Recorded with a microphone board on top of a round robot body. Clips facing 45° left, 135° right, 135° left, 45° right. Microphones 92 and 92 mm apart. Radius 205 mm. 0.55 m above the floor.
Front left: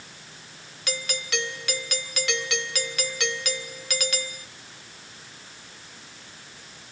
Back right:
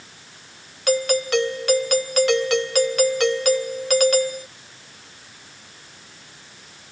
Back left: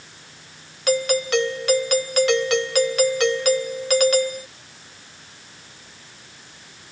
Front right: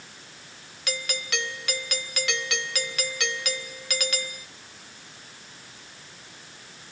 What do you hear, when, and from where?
0.9 s a doorbell: 175° right